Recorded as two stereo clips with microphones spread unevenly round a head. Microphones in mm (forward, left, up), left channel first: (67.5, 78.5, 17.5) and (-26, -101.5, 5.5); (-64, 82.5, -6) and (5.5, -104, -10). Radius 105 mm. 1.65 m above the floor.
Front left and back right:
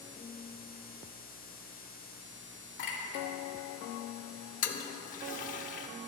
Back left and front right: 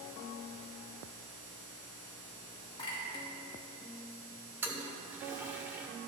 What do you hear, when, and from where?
2.8 s a clink: 45° left, 1.9 m
4.6 s a toilet flushing: 10° left, 0.7 m